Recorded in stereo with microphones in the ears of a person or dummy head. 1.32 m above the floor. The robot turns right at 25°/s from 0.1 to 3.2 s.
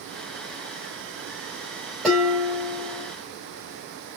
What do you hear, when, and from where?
2.0 s dishes clattering: 5° left (ahead or behind), 4 m; by 3.1 s 30° left (ahead or behind), 4 m